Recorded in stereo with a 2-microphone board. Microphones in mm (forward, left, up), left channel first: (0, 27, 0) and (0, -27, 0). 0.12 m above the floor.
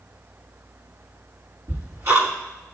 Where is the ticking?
55° right (ahead or behind), 6 m.